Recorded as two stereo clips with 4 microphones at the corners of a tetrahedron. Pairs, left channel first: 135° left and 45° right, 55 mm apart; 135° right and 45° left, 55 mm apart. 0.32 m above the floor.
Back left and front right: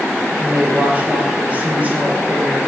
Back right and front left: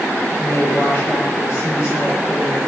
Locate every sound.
0.4 s a woman speaking: 105° right, 6.5 m